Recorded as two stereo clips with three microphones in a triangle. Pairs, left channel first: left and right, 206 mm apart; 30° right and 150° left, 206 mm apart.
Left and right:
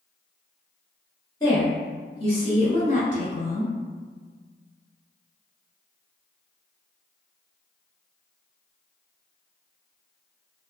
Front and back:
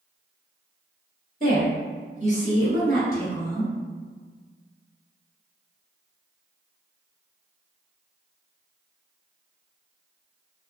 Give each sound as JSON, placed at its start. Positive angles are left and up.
{"t": 1.4, "sound": "a woman speaking", "azimuth_deg": 150, "distance_m": 1.6}